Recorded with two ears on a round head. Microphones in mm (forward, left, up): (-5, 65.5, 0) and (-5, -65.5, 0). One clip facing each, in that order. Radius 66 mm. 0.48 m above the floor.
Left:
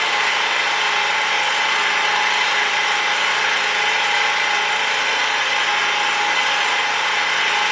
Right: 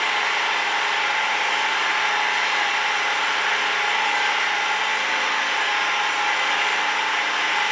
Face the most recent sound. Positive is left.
turn(degrees=75)  # may be behind; listen again after turning